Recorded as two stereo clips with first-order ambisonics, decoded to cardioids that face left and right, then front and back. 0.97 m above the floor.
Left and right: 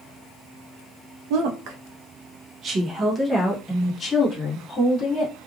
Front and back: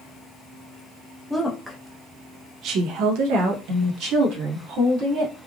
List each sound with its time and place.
1.3 s a woman speaking: 85° right, 0.8 m; by 5.3 s 160° left, 1.6 m